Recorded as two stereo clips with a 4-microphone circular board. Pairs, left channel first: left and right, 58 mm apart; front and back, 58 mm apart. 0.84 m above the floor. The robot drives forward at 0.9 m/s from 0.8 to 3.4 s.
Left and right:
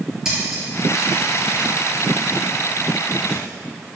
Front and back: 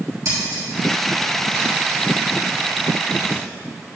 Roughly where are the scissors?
Behind.